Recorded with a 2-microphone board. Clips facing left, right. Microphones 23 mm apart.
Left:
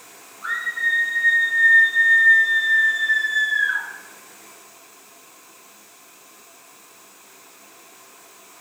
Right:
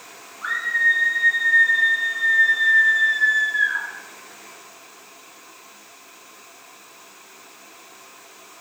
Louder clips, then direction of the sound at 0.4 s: Right 3 dB; 40° right (ahead or behind).